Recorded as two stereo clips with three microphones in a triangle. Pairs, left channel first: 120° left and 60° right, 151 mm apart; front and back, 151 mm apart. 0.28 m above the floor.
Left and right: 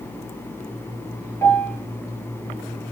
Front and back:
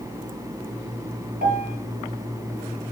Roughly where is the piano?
Behind.